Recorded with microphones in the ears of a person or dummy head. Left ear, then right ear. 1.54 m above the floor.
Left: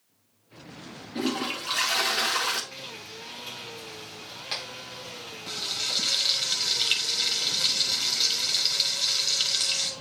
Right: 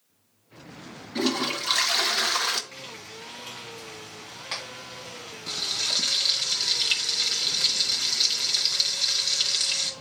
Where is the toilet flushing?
20° right (ahead or behind), 0.8 m.